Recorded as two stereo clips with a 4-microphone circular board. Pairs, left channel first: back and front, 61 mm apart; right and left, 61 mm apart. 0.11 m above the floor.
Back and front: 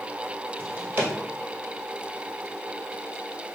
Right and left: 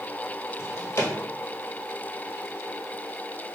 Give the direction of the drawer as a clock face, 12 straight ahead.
2 o'clock.